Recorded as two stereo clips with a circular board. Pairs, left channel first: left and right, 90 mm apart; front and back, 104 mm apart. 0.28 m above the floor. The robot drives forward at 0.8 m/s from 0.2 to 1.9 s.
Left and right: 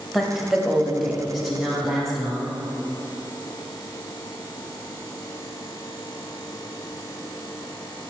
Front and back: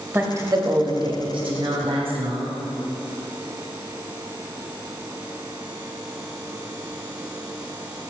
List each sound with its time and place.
0.1 s a woman speaking: 175° right, 0.9 m; by 2.7 s straight behind, 1.9 m